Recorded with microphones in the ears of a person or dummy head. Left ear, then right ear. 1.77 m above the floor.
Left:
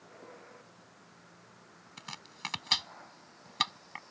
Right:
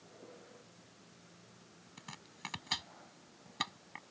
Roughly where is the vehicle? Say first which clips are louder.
Left 4 dB; left.